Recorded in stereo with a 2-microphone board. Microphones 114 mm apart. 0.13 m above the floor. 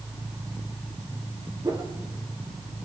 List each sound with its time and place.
1.6 s a whoosh: 30° right (ahead or behind), 4 m